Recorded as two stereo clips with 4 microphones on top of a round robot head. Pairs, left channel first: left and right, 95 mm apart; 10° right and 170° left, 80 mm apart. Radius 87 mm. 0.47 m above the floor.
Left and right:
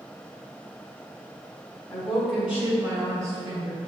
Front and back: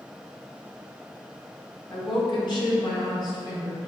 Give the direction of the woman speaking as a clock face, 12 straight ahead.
12 o'clock.